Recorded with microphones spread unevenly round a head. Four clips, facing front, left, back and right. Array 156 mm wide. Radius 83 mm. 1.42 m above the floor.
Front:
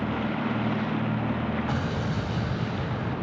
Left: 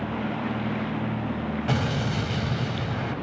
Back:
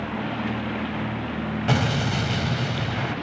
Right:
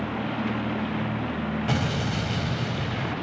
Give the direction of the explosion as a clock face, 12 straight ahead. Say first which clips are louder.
Even, back 5 dB; 5 o'clock.